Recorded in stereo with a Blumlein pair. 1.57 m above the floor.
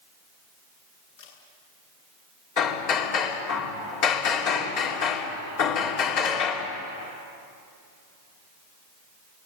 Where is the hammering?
40° left, 3.5 m.